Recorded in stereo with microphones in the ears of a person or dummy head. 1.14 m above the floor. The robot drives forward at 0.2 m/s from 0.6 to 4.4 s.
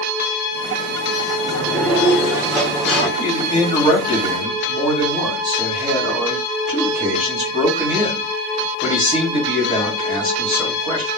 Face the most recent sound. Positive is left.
turn(degrees=20)  # may be behind; listen again after turning